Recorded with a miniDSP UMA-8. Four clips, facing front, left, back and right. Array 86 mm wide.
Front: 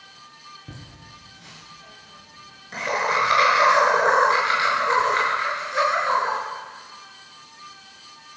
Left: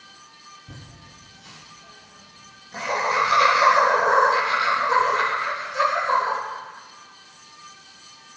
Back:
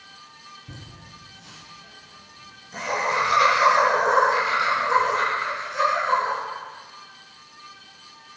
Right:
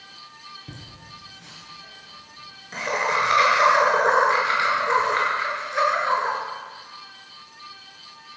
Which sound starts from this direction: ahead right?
Laughter, at 0.7 s.